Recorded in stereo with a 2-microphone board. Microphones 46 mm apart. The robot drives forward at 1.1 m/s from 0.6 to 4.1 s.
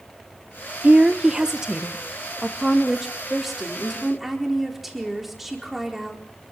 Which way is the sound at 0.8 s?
30° right (ahead or behind).